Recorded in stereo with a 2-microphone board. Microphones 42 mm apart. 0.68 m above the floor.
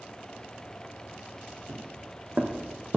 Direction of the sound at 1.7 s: 50° right (ahead or behind).